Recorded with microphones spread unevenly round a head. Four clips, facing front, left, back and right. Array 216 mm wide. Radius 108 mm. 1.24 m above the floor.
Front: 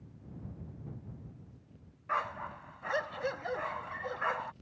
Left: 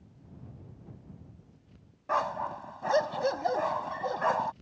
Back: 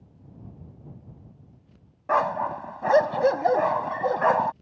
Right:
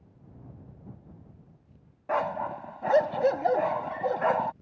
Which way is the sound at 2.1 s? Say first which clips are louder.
Right 2 dB, back 12 dB; 160° right.